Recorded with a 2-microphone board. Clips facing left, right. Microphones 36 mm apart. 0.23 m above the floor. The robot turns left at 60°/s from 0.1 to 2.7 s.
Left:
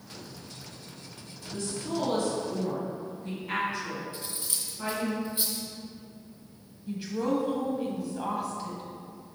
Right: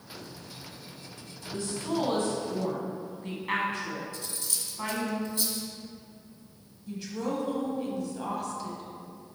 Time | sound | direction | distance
1.5 | a woman speaking | 20° right (ahead or behind) | 1.9 m
4.1 | cutlery clinking | 20° left (ahead or behind) | 1.9 m
6.9 | a woman speaking | 15° left (ahead or behind) | 1.3 m